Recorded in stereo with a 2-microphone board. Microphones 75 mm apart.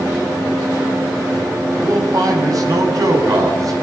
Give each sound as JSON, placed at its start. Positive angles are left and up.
{"t": 1.8, "sound": "a man speaking", "side_deg": -50, "distance_m": 7.5}